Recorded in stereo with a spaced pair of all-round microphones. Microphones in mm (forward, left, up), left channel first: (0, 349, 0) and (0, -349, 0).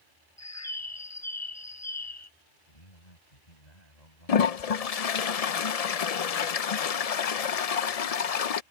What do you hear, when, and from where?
0.4 s a bird: 25° left (ahead or behind)
2.7 s a man speaking: 75° left (ahead or behind)
4.3 s a toilet flushing: 60° left (ahead or behind)